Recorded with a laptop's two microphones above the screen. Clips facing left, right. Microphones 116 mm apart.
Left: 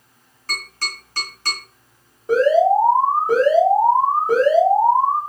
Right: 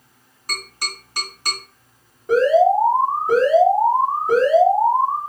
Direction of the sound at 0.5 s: 15° right (ahead or behind).